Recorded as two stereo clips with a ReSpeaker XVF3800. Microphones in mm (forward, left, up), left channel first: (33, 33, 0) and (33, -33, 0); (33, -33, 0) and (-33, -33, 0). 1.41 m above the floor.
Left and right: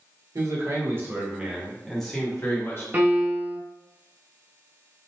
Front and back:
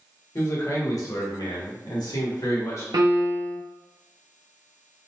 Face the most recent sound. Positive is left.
turn(degrees=-150)